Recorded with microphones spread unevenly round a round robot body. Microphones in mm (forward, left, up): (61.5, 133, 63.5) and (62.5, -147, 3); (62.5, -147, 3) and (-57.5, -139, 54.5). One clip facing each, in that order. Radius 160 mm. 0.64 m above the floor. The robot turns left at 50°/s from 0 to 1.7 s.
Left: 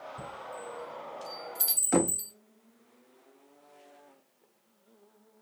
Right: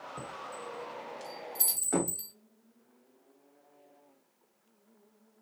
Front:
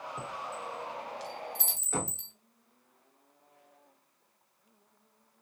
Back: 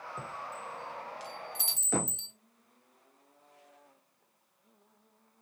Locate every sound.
0.2 s a chime: 90° right, 1.5 m; by 2.3 s 165° right, 1.5 m
1.9 s knocking: 145° left, 0.6 m